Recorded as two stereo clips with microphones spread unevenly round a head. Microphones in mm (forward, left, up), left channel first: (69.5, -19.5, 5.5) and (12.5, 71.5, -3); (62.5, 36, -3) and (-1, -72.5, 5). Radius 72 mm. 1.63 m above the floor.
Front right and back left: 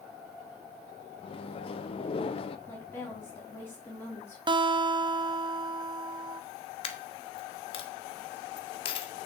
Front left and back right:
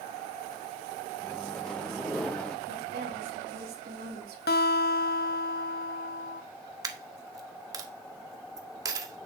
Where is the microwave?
25° right, 0.9 m.